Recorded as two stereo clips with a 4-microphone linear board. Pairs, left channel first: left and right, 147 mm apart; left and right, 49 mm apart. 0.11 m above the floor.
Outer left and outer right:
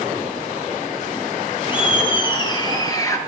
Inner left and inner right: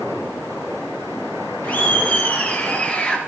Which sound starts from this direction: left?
Laughter, at 1.6 s.